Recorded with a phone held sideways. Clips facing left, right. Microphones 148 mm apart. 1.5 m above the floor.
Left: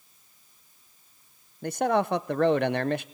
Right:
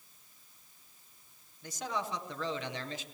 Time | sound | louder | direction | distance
1.6 | a man speaking | left 13 dB | 65° left (ahead or behind) | 0.7 m